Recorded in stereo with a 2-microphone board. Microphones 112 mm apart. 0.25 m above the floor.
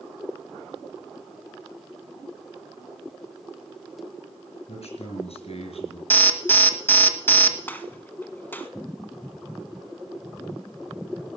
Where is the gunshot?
20° left (ahead or behind), 0.8 m.